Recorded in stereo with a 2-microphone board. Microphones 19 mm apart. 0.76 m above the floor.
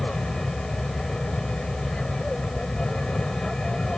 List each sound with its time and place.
0.0 s an aircraft: 45° left (ahead or behind)